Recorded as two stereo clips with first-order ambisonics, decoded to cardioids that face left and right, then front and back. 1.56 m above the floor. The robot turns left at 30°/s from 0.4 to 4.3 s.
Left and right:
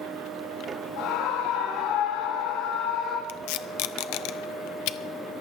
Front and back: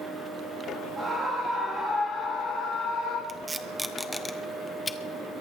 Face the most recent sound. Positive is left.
turn(degrees=75)